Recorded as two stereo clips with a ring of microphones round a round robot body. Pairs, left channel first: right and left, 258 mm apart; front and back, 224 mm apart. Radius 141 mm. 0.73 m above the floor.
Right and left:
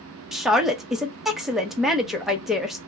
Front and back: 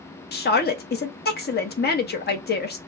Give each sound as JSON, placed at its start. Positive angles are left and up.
{"t": 0.3, "sound": "a woman speaking", "azimuth_deg": 0, "distance_m": 0.9}